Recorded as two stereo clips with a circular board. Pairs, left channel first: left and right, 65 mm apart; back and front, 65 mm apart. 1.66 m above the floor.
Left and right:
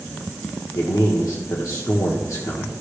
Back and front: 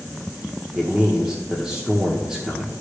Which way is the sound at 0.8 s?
75° left.